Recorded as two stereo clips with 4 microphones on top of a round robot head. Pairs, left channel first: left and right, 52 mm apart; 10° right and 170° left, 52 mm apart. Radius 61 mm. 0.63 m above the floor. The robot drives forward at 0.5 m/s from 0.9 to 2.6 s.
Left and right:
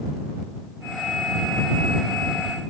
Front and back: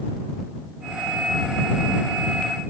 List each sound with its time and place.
Only background noise.